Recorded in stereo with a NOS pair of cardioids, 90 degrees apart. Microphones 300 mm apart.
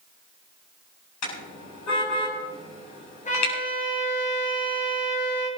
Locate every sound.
1.2 s a car horn: 65° left, 8 m
3.2 s a trumpet: 25° left, 6.5 m